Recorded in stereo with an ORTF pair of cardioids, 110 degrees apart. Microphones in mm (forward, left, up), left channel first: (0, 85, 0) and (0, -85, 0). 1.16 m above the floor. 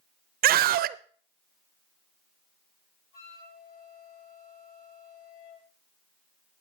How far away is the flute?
About 5 m.